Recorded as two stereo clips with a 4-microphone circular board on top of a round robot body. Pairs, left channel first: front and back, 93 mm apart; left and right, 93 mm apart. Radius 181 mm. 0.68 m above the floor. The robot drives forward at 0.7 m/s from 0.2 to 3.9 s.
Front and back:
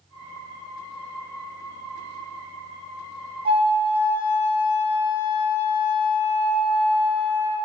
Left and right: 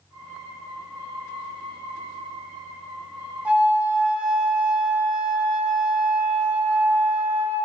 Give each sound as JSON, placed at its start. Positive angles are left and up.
{"t": 3.5, "sound": "a flute", "azimuth_deg": -165, "distance_m": 2.5}